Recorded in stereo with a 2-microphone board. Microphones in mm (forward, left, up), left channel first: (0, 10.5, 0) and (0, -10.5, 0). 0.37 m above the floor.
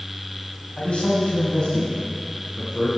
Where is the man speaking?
50° left (ahead or behind), 2.5 m; by 2.9 s 30° left (ahead or behind), 4.5 m.